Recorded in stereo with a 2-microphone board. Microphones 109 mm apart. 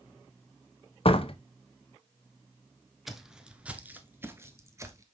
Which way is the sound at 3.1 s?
Centre (ahead or behind).